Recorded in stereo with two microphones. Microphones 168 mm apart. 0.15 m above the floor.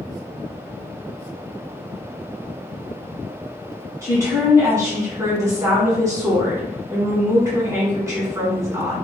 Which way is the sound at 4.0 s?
20° right (ahead or behind).